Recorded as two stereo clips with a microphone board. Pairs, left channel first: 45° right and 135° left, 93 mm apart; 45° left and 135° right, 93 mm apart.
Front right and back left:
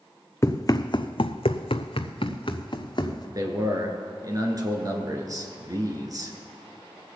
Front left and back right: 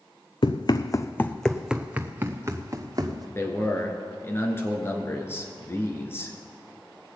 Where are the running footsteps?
20° left, 0.8 m; by 3.2 s 85° right, 1.7 m.